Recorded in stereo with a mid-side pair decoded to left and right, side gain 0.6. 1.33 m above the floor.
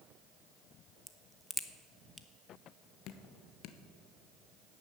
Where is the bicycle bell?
No bicycle bell in this recording.